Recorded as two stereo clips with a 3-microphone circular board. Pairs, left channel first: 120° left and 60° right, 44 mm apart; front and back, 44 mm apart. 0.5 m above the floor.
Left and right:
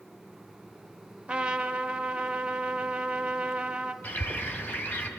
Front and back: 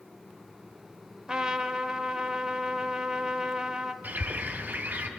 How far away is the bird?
About 1.4 m.